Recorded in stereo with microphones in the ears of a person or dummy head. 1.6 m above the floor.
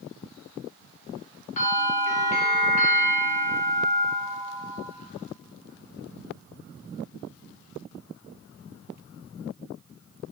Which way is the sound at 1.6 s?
40° left (ahead or behind).